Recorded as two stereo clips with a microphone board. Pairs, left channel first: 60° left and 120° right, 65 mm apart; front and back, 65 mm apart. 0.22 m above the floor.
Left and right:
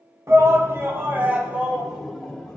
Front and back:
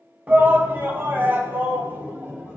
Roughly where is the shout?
Behind right.